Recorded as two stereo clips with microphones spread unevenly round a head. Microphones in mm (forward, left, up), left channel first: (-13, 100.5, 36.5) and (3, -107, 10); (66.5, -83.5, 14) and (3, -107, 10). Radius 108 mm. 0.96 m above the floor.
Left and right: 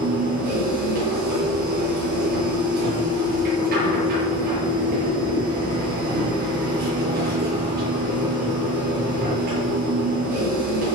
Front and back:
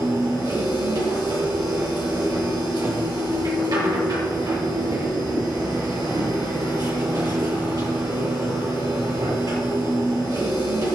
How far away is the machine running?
About 7.5 m.